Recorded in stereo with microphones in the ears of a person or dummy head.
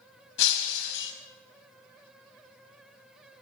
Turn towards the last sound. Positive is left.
turn(degrees=65)  # may be behind; listen again after turning